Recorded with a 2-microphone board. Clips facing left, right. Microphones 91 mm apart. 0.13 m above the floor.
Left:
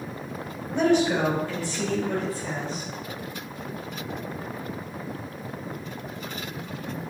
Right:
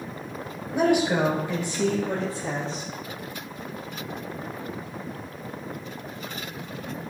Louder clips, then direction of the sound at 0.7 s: Even; 10° right (ahead or behind).